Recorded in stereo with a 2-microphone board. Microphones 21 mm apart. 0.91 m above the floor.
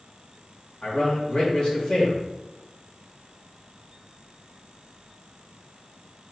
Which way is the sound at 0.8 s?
60° left (ahead or behind).